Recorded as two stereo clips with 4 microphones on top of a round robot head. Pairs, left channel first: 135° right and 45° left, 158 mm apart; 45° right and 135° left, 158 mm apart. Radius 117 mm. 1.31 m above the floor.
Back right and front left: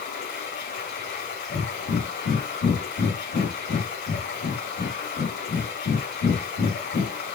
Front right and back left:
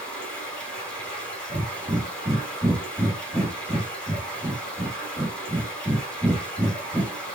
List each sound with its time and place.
0.0 s running water: 130° right, 3.5 m
1.5 s breathing: 145° right, 1.6 m